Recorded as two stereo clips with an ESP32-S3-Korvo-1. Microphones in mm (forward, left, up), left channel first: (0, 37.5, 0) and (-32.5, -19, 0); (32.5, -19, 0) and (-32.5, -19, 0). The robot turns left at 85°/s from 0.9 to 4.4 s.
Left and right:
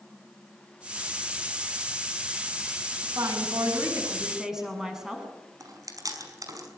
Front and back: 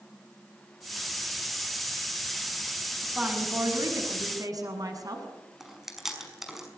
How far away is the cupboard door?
No cupboard door in this recording.